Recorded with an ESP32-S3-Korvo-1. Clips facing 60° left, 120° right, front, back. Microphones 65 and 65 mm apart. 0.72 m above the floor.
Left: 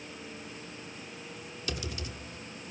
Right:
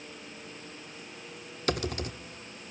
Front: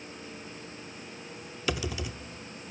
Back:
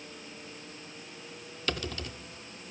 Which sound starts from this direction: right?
Typing on a keyboard, at 1.7 s.